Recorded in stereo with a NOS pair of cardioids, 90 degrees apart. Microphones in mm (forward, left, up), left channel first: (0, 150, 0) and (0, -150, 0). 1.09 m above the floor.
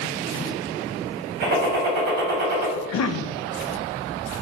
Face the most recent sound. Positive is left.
turn(degrees=60)